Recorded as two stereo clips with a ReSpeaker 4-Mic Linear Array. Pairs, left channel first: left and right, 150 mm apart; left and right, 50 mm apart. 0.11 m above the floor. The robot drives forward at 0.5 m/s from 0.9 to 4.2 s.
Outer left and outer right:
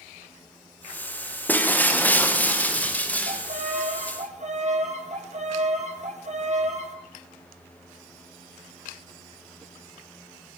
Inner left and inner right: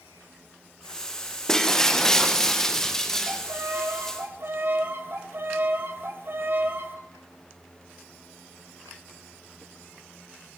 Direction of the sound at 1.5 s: 10° left (ahead or behind).